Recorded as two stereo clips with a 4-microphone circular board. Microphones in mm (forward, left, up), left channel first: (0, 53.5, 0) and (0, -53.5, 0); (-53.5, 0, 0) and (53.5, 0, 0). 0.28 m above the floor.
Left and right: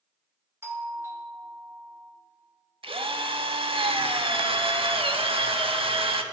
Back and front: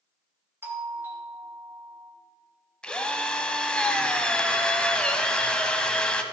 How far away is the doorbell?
About 1.6 m.